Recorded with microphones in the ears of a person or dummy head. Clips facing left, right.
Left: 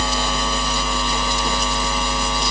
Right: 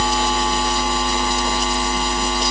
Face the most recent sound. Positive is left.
No sound to turn to.